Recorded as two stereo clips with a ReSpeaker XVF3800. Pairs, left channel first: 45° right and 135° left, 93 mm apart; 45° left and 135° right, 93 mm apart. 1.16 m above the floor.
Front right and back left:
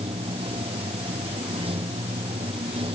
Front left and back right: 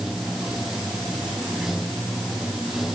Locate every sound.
0.0 s running water: 140° left